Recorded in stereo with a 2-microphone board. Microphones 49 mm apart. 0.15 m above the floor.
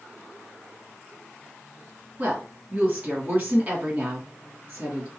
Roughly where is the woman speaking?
Right.